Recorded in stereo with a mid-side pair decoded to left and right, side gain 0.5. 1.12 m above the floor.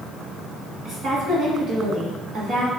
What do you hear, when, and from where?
0.8 s a woman speaking: 50° right, 2.0 m